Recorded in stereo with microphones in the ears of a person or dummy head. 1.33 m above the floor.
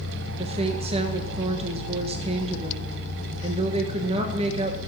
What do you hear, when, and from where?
0.4 s a woman speaking: 35° right (ahead or behind), 1.2 m